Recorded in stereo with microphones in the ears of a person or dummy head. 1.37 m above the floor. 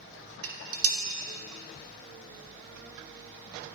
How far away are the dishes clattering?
About 1.2 m.